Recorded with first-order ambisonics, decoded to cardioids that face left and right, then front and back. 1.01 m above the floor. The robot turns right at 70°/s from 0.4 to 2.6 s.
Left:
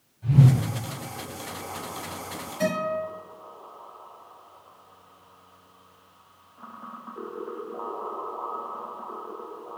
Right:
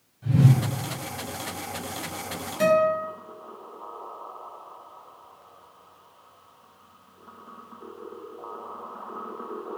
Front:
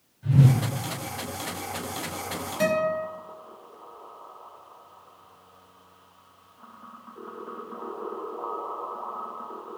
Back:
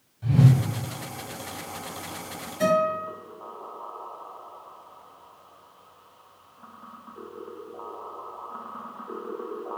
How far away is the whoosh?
About 1.1 m.